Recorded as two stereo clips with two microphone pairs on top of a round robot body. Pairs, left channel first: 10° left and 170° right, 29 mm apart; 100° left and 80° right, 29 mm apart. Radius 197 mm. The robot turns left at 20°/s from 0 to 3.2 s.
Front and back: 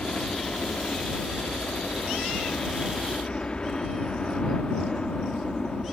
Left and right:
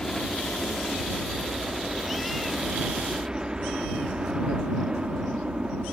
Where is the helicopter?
50° left; by 5.9 s 45° right.